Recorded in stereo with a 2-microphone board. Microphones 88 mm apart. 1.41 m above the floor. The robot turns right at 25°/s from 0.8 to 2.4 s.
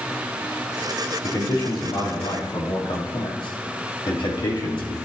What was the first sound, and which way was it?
A man speaking, 70° left (ahead or behind).